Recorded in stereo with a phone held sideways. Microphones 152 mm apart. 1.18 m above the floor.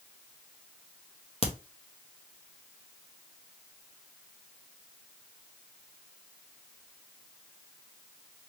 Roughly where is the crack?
Left.